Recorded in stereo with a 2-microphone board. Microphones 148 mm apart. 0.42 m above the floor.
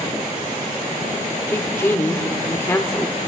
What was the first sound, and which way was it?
A woman speaking, 20° left (ahead or behind).